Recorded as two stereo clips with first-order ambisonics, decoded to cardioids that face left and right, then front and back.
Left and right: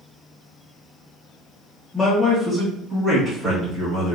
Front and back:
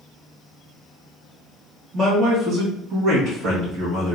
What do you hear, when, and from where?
1.9 s a man speaking: 165° left, 1.1 m; by 4.2 s 135° right, 1.7 m